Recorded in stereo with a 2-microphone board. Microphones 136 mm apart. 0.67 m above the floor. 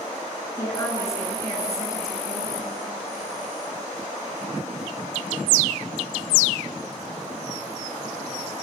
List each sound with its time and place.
0.6 s a woman speaking: 25° left (ahead or behind), 7.5 m